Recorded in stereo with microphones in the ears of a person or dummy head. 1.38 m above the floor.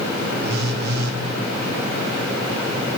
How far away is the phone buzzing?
About 1.3 m.